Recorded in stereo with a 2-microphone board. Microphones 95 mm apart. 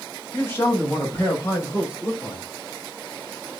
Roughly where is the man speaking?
Left.